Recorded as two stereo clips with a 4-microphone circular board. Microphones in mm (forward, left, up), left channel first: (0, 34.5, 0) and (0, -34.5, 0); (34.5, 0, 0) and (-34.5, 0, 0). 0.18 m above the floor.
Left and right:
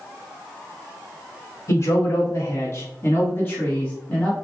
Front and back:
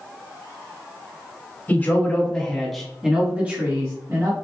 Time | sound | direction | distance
1.7 | a man speaking | 60° left | 1.5 m